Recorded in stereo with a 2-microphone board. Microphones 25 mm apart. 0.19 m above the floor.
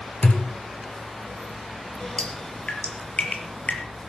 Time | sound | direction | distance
0.2 | a thud | 65° left (ahead or behind) | 1.9 m
2.2 | dripping | 65° left (ahead or behind) | 4 m